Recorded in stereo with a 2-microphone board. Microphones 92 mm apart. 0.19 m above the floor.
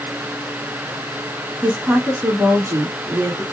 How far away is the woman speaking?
About 1.3 m.